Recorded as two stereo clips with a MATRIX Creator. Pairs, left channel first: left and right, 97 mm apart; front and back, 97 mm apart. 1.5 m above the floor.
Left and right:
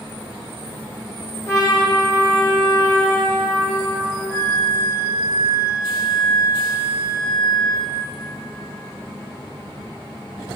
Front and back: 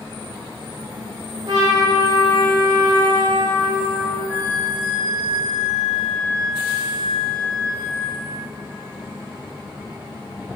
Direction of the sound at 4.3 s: 100° right.